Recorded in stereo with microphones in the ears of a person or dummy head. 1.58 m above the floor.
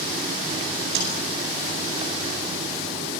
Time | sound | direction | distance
0.9 | a snare drum | 65° right (ahead or behind) | 9 m